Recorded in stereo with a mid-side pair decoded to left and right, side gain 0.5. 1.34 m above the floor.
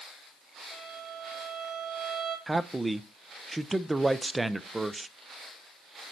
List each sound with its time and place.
0.7 s a violin: 40° right, 3 m
2.5 s a man speaking: 15° right, 0.6 m